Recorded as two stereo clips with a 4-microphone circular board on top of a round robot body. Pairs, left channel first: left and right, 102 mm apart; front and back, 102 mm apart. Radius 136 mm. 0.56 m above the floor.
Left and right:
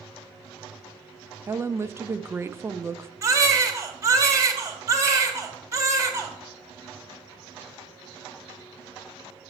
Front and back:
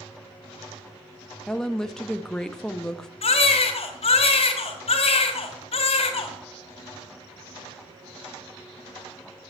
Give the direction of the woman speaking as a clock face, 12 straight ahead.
3 o'clock.